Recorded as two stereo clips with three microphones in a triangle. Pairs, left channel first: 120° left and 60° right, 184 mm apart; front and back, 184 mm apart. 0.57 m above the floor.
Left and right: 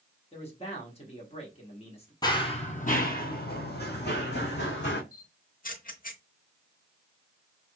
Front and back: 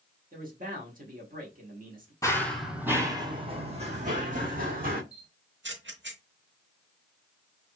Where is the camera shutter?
160° left, 0.8 m.